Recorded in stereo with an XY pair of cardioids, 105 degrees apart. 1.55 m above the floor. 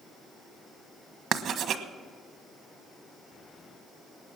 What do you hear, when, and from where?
1.3 s writing: 65° right, 1.3 m